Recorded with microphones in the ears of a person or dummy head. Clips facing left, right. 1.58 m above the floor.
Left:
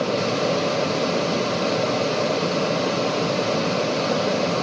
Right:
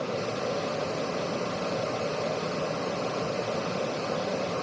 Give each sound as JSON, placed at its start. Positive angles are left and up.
{"t": 0.0, "sound": "a fan", "side_deg": 80, "distance_m": 1.1}